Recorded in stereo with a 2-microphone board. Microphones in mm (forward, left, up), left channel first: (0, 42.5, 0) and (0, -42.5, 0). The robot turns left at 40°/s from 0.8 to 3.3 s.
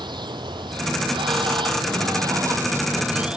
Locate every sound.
0.0 s running water: 70° right, 0.7 m; by 3.4 s 170° right, 0.7 m